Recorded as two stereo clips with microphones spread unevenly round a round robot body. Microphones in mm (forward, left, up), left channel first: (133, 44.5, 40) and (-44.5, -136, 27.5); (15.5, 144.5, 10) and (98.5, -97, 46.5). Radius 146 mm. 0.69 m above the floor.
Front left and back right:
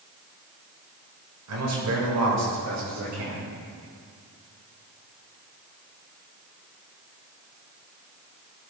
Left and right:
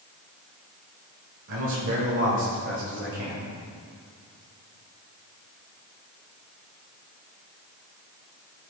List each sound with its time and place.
1.5 s a man speaking: 120° right, 3.5 m; by 3.5 s 125° right, 4.5 m